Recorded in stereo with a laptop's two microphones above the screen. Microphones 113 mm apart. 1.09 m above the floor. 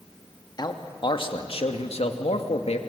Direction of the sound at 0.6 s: 40° left (ahead or behind).